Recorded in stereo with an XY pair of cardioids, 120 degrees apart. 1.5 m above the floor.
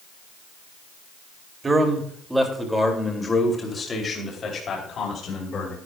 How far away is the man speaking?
About 2.5 m.